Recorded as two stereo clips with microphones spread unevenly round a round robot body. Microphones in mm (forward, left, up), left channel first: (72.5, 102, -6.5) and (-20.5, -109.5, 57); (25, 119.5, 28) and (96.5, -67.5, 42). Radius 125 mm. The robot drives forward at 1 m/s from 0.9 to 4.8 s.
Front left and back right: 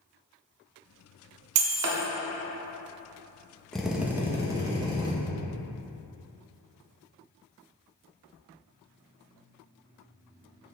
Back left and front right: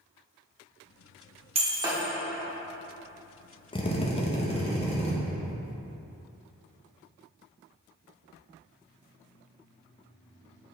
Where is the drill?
115° left, 0.8 m; by 5.1 s 165° left, 1.5 m.